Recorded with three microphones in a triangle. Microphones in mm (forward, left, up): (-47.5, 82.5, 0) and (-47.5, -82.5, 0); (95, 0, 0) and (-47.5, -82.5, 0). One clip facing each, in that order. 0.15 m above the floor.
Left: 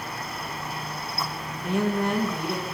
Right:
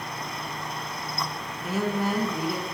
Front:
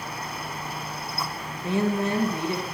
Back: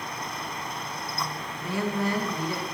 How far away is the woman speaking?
About 1.4 m.